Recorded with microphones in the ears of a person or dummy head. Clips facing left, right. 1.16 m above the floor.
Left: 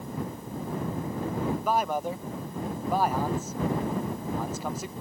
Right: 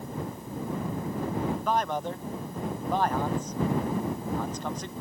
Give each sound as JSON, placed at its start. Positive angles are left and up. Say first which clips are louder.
{"t": 1.6, "sound": "a man speaking", "louder": "left 1 dB", "side_deg": 5}